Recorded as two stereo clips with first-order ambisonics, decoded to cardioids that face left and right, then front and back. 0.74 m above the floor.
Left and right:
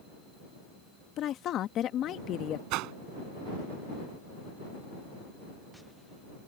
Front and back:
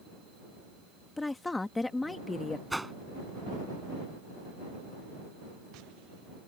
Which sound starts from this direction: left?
A woman speaking, at 1.2 s.